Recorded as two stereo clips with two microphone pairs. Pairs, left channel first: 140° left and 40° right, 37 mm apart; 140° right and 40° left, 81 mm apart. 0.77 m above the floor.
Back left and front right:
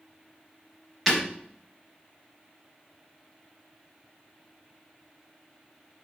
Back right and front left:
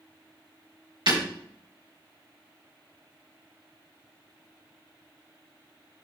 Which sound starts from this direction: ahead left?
Breaking glass, at 1.1 s.